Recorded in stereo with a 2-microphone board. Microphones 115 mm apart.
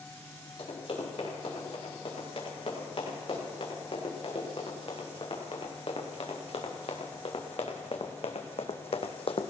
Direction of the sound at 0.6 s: 55° left (ahead or behind).